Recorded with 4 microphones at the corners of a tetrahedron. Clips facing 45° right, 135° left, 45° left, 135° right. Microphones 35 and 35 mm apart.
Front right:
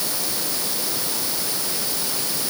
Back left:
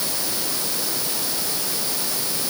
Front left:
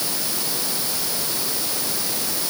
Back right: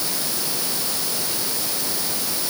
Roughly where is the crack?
I don't hear a crack.